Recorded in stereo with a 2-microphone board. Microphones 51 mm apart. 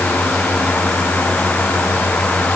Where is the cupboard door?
No cupboard door in this recording.